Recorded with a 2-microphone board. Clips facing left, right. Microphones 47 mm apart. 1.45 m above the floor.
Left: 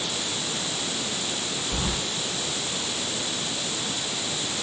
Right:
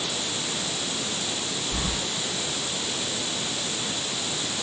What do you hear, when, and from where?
1.7 s keys jangling: 80° left, 4 m